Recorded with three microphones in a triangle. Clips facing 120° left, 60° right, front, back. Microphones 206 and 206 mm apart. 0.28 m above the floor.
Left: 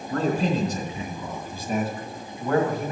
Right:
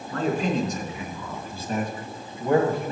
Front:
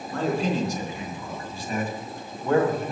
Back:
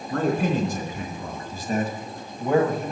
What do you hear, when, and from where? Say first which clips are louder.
0.1 s a man speaking: left 1 dB, back 2 dB; 160° left, 3.5 m; by 2.9 s 90° right, 1.8 m